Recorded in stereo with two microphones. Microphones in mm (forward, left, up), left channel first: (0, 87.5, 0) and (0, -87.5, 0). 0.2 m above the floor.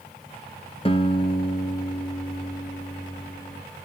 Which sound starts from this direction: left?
A guitar, at 0.8 s.